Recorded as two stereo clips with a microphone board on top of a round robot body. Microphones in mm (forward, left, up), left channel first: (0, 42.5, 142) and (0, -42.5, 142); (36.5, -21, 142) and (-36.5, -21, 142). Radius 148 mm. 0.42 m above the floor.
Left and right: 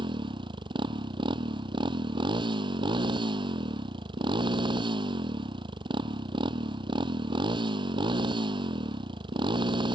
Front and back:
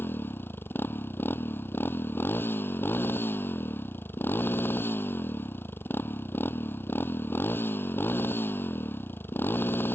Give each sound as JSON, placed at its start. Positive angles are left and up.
{"t": 0.0, "sound": "a motorcycle", "azimuth_deg": -60}